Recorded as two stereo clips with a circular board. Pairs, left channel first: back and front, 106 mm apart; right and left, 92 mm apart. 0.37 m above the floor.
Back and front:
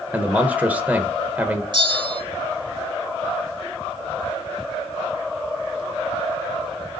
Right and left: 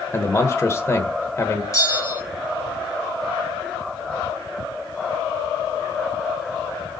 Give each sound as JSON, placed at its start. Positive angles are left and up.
{"t": 0.1, "sound": "a man speaking", "azimuth_deg": -65, "distance_m": 0.9}
{"t": 1.7, "sound": "a bell", "azimuth_deg": -40, "distance_m": 1.1}